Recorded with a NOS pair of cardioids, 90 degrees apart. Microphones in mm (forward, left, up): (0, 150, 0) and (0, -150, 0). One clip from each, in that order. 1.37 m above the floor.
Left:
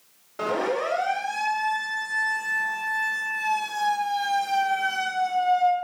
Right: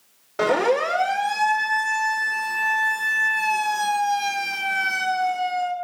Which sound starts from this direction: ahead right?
A siren, at 0.4 s.